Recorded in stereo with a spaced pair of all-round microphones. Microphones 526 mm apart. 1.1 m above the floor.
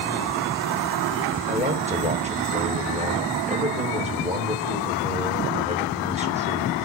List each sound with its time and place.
1.5 s a man speaking: 15° right (ahead or behind), 1.5 m